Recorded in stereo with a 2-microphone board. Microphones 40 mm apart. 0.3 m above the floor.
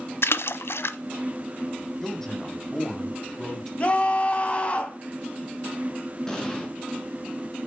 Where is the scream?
30° left (ahead or behind), 2.5 m.